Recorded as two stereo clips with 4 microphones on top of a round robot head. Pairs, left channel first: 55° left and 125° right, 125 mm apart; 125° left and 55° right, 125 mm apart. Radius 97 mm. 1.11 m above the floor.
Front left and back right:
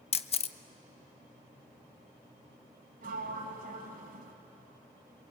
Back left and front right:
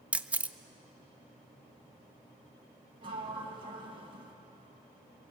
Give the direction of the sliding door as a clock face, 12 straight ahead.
4 o'clock.